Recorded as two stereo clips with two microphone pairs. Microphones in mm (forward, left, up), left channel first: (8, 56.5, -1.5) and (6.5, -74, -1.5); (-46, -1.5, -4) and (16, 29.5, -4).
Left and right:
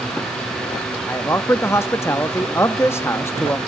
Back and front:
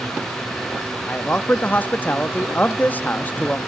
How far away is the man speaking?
About 0.8 m.